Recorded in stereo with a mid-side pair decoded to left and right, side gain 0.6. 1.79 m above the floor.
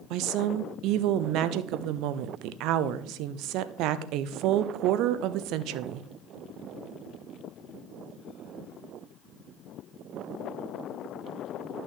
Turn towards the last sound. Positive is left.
turn(degrees=-70)